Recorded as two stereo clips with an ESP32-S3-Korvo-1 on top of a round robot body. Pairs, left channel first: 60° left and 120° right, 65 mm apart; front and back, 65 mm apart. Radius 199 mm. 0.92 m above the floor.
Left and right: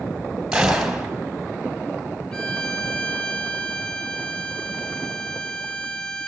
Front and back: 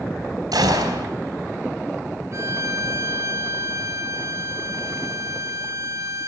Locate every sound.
0.5 s a gunshot: 160° left, 3 m
2.3 s a violin: 140° left, 2.0 m